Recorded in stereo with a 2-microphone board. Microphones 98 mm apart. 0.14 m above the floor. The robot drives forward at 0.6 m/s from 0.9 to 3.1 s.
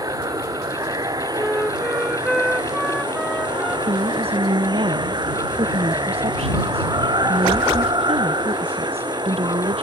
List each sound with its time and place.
0.0 s running water: 40° right (ahead or behind); by 9.8 s 45° right (ahead or behind)
1.4 s a flute: 5° left (ahead or behind)
3.9 s a woman speaking: 80° right